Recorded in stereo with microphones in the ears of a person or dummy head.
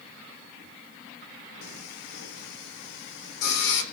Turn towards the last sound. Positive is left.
turn(degrees=60)  # may be behind; listen again after turning